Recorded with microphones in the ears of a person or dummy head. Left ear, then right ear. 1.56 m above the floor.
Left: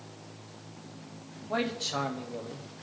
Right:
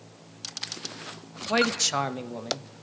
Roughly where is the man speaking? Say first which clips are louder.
Right 7 dB; right.